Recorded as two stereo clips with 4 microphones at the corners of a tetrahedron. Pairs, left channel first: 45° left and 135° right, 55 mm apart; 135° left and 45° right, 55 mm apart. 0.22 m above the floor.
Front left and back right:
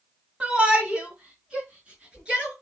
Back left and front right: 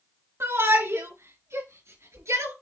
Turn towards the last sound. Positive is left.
turn(degrees=-60)